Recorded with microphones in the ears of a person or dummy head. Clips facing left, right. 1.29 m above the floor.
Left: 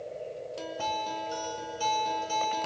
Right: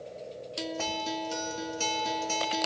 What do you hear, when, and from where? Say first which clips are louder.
0.6 s a guitar: right 1 dB; 25° right (ahead or behind), 2.5 m